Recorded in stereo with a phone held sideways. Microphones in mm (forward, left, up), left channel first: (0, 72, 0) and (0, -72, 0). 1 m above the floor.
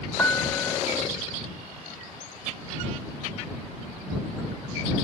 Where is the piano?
15° left (ahead or behind).